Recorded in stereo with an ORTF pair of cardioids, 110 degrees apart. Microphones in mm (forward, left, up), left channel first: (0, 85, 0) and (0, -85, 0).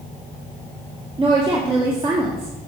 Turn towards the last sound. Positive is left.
turn(degrees=-30)